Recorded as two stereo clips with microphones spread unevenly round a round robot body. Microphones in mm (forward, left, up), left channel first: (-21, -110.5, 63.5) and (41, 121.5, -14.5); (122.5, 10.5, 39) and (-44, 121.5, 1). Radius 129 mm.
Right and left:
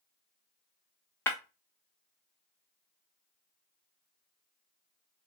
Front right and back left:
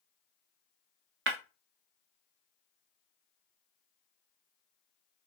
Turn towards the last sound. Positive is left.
turn(degrees=165)